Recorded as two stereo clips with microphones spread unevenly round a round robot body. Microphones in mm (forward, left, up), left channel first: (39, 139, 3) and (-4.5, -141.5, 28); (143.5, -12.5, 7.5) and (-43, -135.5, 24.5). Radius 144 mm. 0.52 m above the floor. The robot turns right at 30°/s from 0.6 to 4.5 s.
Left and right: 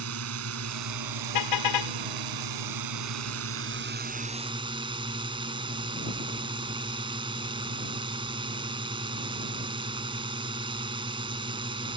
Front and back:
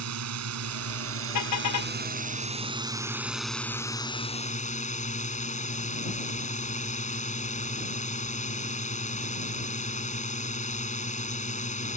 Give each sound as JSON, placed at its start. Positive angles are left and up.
{"t": 0.0, "sound": "a drone", "azimuth_deg": -140}
{"t": 1.3, "sound": "a car horn", "azimuth_deg": 60}